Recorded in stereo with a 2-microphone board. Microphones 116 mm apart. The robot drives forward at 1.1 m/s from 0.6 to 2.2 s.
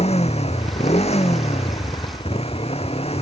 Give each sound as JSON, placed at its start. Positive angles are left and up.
{"t": 0.0, "sound": "a motorcycle", "side_deg": 65}